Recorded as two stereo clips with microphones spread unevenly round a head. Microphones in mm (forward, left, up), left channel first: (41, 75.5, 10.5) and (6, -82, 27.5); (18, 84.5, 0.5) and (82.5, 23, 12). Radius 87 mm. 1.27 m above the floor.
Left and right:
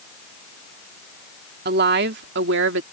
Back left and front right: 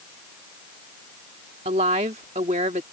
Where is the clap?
No clap in this recording.